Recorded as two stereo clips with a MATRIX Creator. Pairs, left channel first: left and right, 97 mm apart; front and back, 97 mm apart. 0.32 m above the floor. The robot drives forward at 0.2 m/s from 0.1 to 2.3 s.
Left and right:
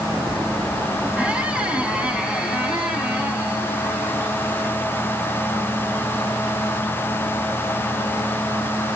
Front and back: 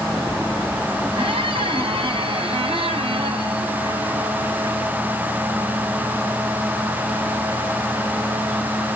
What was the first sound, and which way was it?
A squeak, 170° right.